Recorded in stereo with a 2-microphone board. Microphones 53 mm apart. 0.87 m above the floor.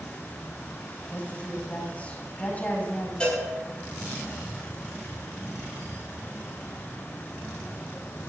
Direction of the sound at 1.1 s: 25° left (ahead or behind).